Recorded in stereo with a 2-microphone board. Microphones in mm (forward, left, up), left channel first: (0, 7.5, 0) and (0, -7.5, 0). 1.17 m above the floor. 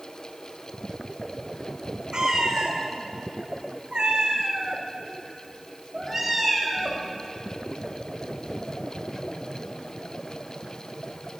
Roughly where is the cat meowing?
Right.